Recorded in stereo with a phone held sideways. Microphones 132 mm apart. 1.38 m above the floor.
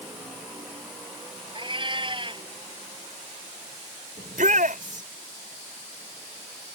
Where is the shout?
80° right.